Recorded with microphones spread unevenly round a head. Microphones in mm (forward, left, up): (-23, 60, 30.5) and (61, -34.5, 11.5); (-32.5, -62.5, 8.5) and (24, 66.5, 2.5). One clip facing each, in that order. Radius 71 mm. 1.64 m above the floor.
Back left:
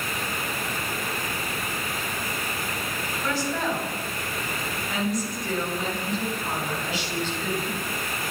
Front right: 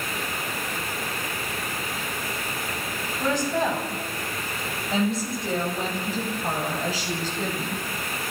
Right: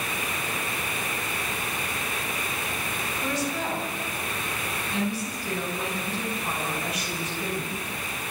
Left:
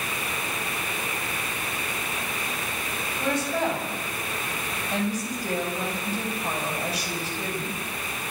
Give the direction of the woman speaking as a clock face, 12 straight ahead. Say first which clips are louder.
Front right 4 dB, left 4 dB; 11 o'clock.